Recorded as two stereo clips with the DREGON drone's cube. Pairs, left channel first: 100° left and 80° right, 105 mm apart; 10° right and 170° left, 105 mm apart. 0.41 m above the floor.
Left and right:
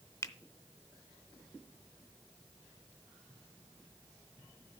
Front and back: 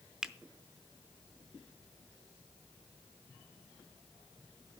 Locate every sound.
0.2 s a finger snap: 90° left, 0.6 m